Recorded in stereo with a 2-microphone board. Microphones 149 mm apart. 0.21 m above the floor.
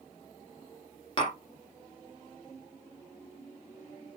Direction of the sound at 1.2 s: 35° left (ahead or behind).